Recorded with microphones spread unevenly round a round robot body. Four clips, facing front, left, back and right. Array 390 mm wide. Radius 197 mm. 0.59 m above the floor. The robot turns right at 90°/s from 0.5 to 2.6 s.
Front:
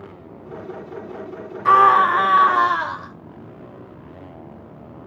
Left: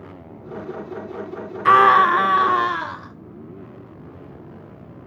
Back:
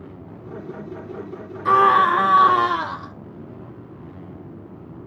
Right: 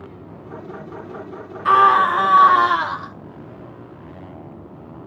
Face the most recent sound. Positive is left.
turn(degrees=-175)